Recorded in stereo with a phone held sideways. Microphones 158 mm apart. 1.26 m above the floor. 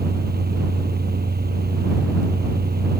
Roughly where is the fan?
Right.